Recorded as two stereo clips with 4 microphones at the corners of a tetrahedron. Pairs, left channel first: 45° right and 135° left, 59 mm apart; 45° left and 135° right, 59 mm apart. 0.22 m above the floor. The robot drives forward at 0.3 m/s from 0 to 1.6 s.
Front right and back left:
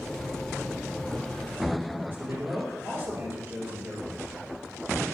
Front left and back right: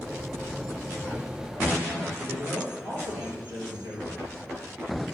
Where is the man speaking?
Straight behind, 4 m.